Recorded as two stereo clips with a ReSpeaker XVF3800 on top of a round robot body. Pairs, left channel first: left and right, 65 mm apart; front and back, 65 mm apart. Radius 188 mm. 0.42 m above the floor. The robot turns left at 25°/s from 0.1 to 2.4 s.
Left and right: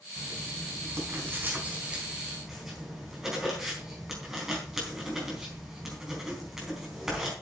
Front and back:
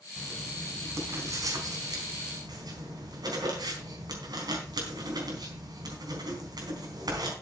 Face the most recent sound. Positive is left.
turn(degrees=-170)